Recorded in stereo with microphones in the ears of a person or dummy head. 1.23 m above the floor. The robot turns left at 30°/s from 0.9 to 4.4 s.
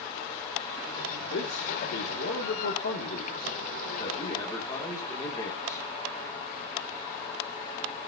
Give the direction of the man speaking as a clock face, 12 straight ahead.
8 o'clock.